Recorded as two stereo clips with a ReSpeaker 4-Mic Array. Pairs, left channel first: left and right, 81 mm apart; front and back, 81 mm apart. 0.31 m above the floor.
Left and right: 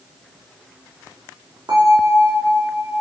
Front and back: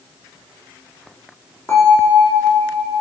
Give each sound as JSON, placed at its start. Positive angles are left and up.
{"t": 1.7, "sound": "a bell", "azimuth_deg": -60, "distance_m": 3.0}